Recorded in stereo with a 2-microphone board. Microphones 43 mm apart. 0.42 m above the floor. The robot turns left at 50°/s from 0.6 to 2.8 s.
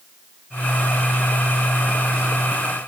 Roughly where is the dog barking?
No dog barking in this recording.